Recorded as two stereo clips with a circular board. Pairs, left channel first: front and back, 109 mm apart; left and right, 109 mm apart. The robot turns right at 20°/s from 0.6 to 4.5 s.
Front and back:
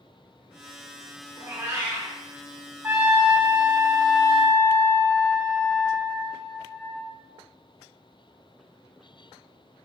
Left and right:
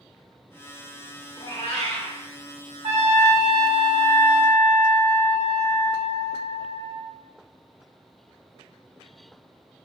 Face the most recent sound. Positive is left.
turn(degrees=-80)